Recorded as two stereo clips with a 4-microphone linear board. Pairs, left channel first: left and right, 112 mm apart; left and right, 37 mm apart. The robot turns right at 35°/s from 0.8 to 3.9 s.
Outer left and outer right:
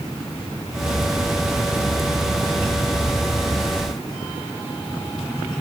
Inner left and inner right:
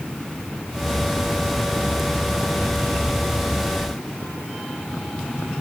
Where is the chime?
No chime in this recording.